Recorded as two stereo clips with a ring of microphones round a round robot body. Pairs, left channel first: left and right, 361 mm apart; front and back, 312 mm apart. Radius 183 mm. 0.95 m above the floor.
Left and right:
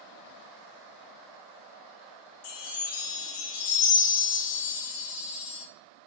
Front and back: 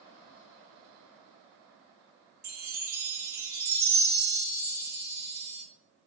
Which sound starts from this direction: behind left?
A chime, at 2.4 s.